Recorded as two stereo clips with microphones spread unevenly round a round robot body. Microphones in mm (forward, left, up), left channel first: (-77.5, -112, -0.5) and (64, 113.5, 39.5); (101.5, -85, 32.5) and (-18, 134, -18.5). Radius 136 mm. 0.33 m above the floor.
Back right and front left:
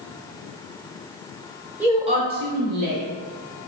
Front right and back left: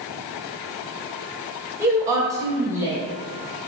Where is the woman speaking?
155° left, 0.9 m; by 3.0 s 50° left, 1.3 m.